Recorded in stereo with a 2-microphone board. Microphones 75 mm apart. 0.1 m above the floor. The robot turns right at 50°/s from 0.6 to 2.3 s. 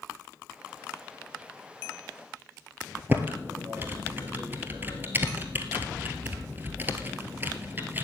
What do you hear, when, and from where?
3.1 s typing on a keyboard: 25° right (ahead or behind), 1.1 m